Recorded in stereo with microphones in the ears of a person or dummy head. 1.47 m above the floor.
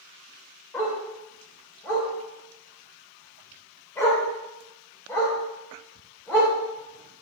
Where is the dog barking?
15° left (ahead or behind), 2.5 m.